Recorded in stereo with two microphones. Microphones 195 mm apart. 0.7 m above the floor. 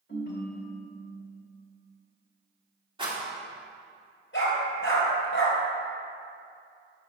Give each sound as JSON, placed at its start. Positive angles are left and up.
{"t": 0.1, "sound": "a ringtone", "side_deg": 55, "distance_m": 1.9}
{"t": 3.0, "sound": "a rattle", "side_deg": -25, "distance_m": 2.0}
{"t": 4.3, "sound": "a dog barking", "side_deg": 70, "distance_m": 3.5}